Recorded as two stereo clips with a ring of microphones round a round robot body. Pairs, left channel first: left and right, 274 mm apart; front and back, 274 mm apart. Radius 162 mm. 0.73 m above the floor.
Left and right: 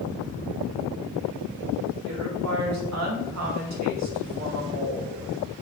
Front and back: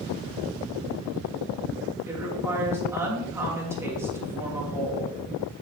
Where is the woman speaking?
100° right, 2.5 m.